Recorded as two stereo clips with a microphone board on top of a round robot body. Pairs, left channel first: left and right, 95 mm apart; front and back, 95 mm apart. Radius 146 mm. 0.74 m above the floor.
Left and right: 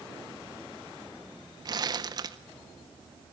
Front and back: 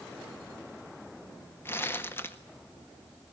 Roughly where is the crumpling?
Ahead right.